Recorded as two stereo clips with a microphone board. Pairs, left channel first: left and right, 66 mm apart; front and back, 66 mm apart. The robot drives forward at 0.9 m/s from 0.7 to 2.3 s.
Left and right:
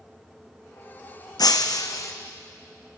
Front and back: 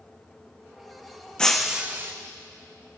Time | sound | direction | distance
1.4 | breaking glass | 75° left | 0.7 m